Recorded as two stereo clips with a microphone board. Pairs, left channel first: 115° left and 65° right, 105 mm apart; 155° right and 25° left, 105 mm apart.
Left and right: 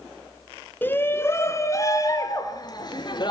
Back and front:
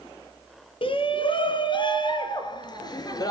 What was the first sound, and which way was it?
A shout, 175° right.